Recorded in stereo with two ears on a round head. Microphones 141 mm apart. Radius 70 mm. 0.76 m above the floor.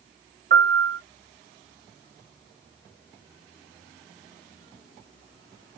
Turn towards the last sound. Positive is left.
turn(degrees=-60)  # may be behind; listen again after turning